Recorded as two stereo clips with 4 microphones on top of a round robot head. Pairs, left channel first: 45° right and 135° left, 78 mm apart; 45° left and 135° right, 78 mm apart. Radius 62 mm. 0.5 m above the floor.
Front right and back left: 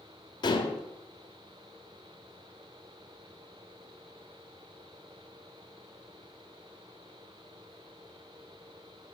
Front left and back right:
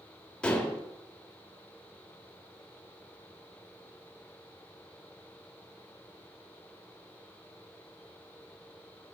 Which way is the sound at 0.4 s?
35° right.